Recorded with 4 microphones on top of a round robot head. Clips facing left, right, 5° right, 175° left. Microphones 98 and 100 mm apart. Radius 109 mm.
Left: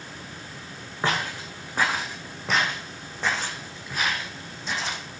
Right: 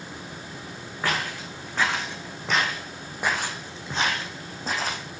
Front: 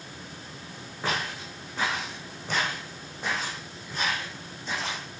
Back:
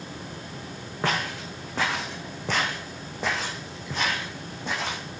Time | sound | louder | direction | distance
1.0 | footsteps | left 1 dB, back 3 dB | 160° left | 3.5 m